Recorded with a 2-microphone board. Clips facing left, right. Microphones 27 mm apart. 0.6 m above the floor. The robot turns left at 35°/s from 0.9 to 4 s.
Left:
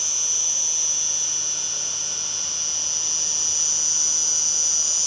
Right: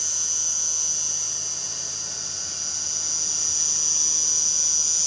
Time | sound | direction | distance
0.0 | an insect | 115° left | 2.5 m